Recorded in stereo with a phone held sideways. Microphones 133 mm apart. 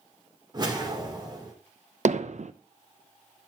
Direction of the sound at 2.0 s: 60° right (ahead or behind).